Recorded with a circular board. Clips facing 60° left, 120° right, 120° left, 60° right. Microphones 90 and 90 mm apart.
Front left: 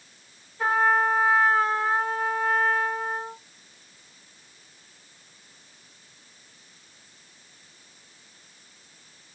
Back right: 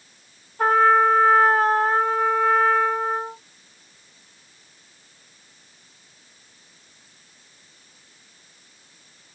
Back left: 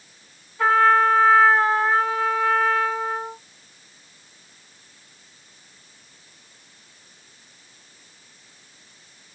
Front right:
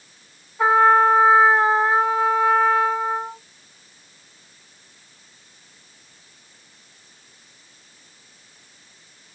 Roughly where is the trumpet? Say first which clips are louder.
Back right 6 dB, front right 2 dB; behind right.